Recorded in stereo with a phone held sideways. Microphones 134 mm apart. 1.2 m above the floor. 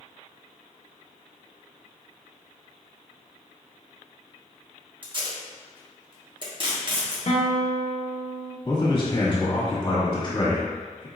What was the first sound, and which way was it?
Tape being pulled, 35° right (ahead or behind).